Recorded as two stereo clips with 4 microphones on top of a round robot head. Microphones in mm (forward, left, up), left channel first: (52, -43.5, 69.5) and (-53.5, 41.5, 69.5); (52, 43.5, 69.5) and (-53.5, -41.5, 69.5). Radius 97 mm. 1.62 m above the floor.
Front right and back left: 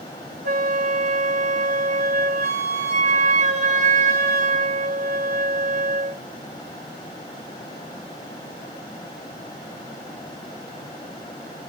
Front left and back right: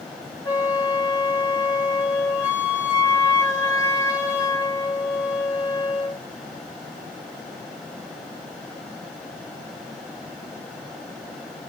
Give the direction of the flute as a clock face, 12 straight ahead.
9 o'clock.